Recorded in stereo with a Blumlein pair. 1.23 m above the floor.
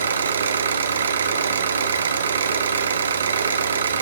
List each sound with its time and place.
0.0 s an engine running: 65° right, 1.2 m